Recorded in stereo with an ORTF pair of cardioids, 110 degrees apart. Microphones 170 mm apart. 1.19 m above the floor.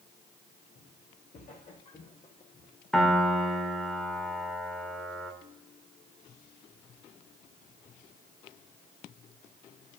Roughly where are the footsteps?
Ahead left.